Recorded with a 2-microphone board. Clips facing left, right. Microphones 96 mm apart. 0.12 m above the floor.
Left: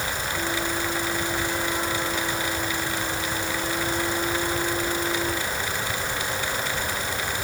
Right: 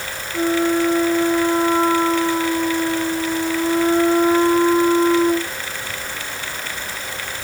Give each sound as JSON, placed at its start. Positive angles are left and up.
{"t": 0.3, "sound": "a flute", "side_deg": -65}